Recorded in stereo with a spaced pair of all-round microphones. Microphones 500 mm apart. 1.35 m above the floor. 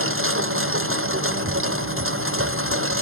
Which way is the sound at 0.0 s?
25° right (ahead or behind).